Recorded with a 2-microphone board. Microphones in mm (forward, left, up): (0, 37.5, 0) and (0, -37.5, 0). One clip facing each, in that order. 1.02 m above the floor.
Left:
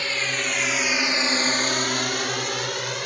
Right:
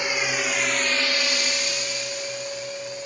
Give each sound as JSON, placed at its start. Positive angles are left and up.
{"t": 0.0, "sound": "a drone", "side_deg": -15}